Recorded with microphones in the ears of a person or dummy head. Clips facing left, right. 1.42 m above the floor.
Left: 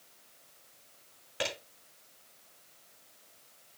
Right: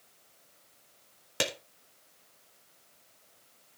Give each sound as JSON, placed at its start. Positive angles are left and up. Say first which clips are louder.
{"t": 1.4, "sound": "a clap", "louder": "right 2 dB", "side_deg": -60, "distance_m": 3.0}